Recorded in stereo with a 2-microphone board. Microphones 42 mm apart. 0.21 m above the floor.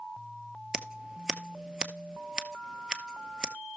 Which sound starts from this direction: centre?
Scissors, at 0.7 s.